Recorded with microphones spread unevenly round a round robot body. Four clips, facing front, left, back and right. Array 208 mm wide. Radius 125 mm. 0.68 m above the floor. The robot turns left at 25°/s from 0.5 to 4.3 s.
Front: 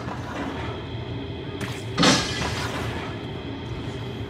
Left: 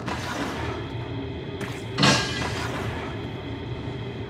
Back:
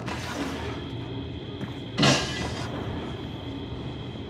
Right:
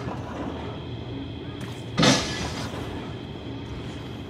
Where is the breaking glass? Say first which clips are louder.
Right 1 dB, front 3 dB; 100° right, 2.5 m; by 2.7 s 115° right, 2.5 m.